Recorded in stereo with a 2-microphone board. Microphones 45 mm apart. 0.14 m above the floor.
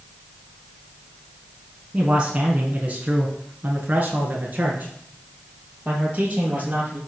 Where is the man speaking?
20° right (ahead or behind), 1.4 m; by 7.0 s 30° right (ahead or behind), 4 m.